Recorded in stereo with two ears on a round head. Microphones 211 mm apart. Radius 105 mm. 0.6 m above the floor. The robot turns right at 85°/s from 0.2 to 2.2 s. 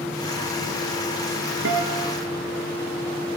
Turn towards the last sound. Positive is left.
turn(degrees=-15)